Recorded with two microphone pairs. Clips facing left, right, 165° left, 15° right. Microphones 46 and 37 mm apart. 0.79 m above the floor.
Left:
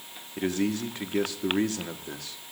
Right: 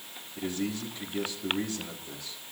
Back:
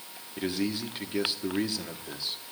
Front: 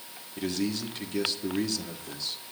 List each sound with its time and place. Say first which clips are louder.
0.4 s a man speaking: left 5 dB, even; 95° left, 1.4 m